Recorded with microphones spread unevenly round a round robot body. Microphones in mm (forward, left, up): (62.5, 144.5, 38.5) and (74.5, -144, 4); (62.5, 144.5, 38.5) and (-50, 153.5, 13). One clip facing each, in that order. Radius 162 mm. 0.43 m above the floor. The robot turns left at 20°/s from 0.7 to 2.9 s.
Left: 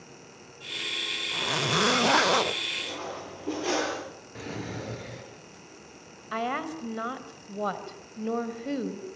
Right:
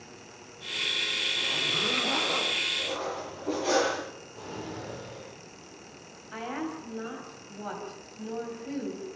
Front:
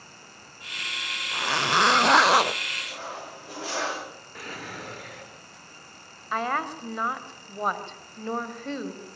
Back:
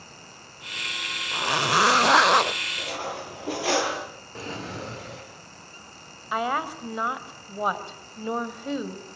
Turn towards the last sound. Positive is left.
turn(degrees=100)